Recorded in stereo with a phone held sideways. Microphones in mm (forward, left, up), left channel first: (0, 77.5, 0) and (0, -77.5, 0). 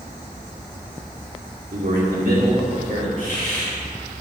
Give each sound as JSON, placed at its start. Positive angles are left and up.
{"t": 1.7, "sound": "a man speaking", "side_deg": -60, "distance_m": 2.0}
{"t": 3.2, "sound": "a hiss", "side_deg": 60, "distance_m": 3.5}